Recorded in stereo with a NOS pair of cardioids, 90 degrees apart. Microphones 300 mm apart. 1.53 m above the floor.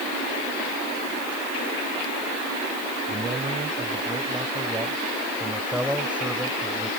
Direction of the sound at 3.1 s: 20° right.